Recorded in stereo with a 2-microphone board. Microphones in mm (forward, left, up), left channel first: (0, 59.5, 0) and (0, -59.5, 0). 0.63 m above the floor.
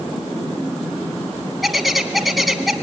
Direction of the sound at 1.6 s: Centre (ahead or behind).